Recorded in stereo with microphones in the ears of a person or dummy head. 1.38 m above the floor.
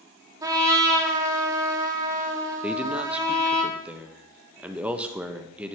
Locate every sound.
0.4 s a trumpet: 15° right (ahead or behind), 1.2 m
2.6 s a man speaking: 5° right (ahead or behind), 0.9 m